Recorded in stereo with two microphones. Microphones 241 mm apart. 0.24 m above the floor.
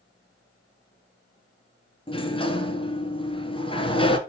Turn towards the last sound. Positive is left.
turn(degrees=20)  # may be behind; listen again after turning